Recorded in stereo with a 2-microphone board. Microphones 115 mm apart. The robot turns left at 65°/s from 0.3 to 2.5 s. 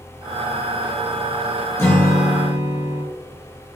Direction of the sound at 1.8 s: 25° left.